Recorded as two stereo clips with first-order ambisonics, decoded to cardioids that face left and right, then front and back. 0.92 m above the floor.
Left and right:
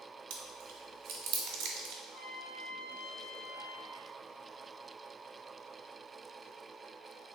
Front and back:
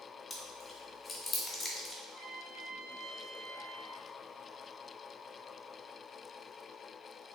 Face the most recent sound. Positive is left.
turn(degrees=105)